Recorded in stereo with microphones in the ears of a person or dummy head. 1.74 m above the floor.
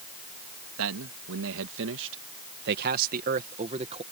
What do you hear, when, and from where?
0.8 s a man speaking: 80° right; by 4.0 s 25° right (ahead or behind)